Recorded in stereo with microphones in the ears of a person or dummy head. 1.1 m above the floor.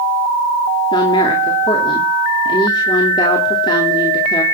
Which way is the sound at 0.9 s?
25° left (ahead or behind).